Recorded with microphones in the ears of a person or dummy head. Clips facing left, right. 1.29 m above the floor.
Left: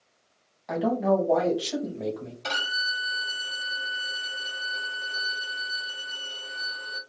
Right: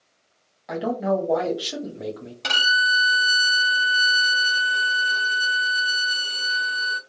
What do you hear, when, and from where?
0.7 s a man speaking: 5° right (ahead or behind), 0.9 m
2.4 s a violin: 80° right, 1.0 m